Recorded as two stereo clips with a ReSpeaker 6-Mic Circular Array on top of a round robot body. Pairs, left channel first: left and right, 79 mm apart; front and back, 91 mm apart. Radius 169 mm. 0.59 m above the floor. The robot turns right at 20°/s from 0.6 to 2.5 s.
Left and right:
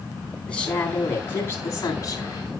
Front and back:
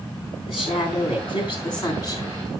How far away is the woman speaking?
About 9.5 m.